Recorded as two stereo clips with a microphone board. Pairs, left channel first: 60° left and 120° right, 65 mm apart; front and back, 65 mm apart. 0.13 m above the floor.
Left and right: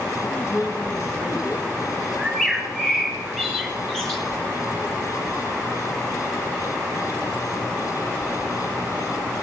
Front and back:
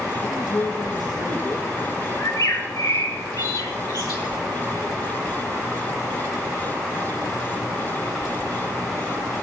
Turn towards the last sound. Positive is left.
turn(degrees=-25)